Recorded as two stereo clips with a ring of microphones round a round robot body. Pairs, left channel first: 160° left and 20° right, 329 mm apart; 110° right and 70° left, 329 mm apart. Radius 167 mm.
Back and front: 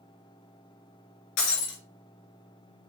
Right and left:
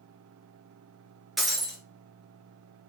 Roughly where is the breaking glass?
Behind left.